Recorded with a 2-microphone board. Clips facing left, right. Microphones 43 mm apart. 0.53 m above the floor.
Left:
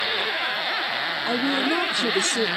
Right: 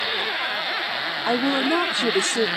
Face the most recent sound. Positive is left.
turn(degrees=-25)  # may be behind; listen again after turning